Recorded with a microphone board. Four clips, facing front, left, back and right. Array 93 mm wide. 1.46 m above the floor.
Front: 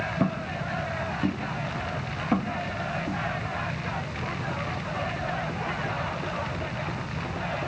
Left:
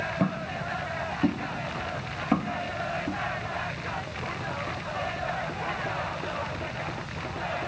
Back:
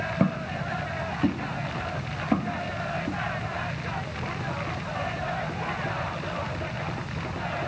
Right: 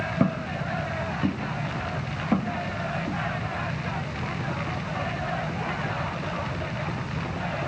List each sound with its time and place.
0.2 s footsteps: 130° right, 1.5 m; by 3.2 s 65° left, 1.7 m